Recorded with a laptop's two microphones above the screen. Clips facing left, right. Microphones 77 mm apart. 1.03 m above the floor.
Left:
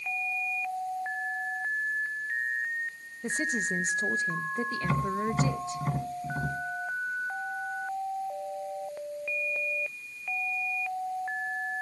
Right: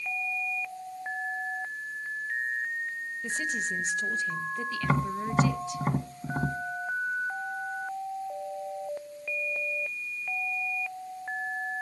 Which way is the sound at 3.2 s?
30° left (ahead or behind).